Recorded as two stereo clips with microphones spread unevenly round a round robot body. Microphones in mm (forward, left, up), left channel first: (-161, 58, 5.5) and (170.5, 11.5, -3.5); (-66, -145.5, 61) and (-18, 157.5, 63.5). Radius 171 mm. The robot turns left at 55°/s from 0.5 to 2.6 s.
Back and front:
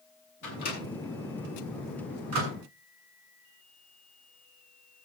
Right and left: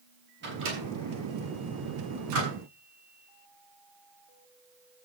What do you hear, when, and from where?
0.4 s a microwave: 140° left, 7 m; by 2.5 s 25° left, 7 m